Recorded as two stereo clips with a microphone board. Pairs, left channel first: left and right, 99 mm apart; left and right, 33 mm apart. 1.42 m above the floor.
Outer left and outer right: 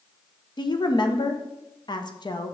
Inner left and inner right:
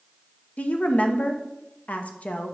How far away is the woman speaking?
About 0.9 m.